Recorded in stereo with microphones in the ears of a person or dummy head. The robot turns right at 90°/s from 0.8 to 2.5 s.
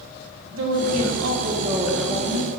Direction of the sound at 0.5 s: 110° right.